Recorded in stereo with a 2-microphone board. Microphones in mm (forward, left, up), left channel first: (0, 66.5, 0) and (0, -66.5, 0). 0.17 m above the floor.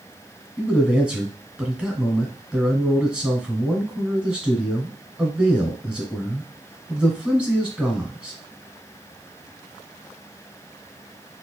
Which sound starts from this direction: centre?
A man speaking, at 0.6 s.